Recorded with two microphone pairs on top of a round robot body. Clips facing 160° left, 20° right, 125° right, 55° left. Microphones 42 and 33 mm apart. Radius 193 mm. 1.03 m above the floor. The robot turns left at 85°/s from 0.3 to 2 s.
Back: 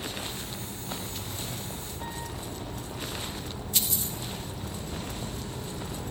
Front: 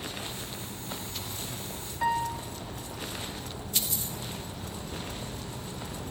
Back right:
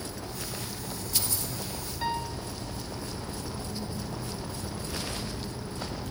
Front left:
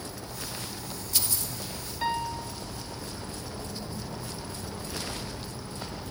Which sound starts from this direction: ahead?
A piano, at 2.0 s.